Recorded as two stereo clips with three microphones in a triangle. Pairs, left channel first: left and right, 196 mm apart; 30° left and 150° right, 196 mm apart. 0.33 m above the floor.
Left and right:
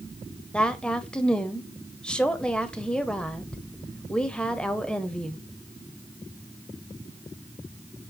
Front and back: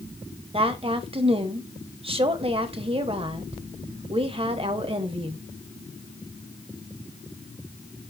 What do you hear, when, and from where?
0.5 s a woman speaking: 175° left, 1.0 m